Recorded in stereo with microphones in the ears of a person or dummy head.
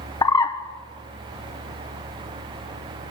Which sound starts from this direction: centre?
A bird, at 0.2 s.